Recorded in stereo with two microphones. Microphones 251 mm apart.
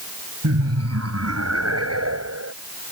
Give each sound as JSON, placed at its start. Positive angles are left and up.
{"t": 0.4, "sound": "laughter", "side_deg": -85}